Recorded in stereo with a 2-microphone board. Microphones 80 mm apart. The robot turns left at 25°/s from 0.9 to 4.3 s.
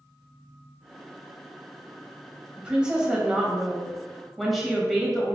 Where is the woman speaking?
15° right (ahead or behind), 1.1 m; by 5.3 s centre (ahead or behind), 1.1 m.